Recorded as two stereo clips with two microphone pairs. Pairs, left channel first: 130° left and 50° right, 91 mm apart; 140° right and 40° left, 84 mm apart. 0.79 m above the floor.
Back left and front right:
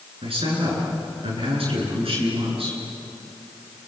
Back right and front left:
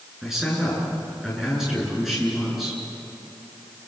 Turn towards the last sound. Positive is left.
turn(degrees=-45)